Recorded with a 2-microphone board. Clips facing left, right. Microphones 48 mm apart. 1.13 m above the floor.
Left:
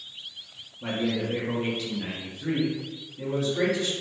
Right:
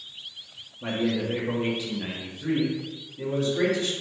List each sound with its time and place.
0.8 s a man speaking: 15° right (ahead or behind), 0.6 m; by 3.9 s centre (ahead or behind), 1.5 m